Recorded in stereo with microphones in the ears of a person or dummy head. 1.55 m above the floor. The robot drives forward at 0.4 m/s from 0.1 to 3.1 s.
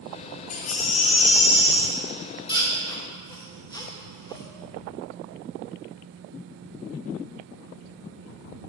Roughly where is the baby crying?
Left.